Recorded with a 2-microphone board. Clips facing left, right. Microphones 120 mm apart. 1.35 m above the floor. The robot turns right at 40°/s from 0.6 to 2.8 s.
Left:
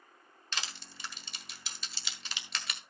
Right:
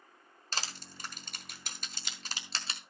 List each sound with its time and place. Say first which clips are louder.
0.5 s crushing: right 2 dB; 35° right (ahead or behind), 1.4 m; by 2.8 s 25° right (ahead or behind), 1.4 m